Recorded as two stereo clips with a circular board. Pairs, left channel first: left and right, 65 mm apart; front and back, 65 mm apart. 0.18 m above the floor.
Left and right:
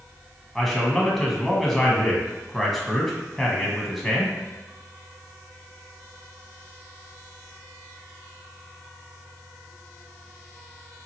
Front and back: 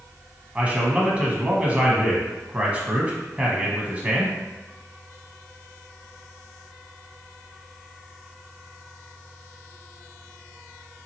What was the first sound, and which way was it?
A man speaking, 170° left.